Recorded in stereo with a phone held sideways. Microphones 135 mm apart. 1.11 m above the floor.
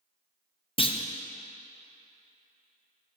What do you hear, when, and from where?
0.8 s a clunk: 45° left (ahead or behind), 0.6 m